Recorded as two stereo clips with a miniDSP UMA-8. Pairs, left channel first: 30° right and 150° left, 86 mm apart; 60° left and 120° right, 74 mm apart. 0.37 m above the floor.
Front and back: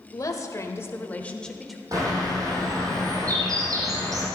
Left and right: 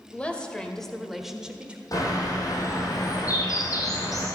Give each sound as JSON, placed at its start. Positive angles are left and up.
{"t": 0.1, "sound": "a woman speaking", "azimuth_deg": -5, "distance_m": 1.5}
{"t": 1.9, "sound": "a bird", "azimuth_deg": 100, "distance_m": 4.0}